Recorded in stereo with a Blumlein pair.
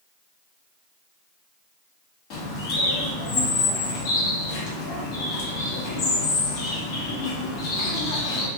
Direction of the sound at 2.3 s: 40° left.